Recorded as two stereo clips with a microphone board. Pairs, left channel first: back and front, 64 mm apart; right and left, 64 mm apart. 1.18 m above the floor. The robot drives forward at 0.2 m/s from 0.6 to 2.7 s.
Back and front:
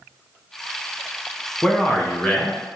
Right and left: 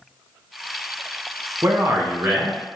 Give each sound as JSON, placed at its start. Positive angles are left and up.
{"t": 1.6, "sound": "a man speaking", "azimuth_deg": 110, "distance_m": 0.8}